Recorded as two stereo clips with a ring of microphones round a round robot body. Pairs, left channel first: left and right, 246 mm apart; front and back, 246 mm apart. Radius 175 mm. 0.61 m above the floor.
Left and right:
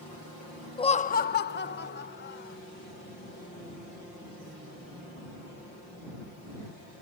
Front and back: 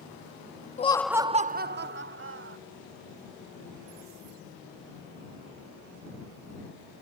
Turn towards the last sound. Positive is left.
turn(degrees=145)